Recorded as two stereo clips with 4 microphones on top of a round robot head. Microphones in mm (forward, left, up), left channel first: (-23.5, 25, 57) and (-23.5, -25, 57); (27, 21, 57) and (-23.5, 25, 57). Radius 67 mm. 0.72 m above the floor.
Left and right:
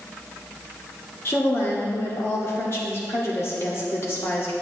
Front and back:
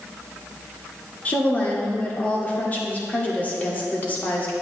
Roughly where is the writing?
I don't hear writing.